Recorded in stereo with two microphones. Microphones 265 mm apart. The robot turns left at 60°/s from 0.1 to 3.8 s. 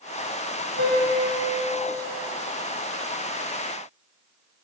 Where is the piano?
130° right, 2.5 m; by 1.9 s 160° left, 2.5 m.